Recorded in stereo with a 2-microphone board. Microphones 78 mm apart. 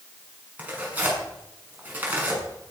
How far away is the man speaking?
I don't hear a man speaking.